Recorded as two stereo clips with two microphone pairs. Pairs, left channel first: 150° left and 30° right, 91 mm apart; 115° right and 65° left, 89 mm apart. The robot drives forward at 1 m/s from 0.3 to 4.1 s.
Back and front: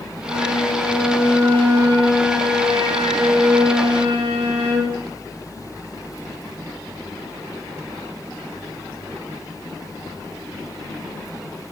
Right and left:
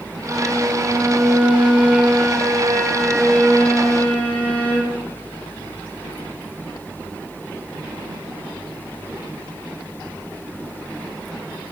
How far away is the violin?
About 6 m.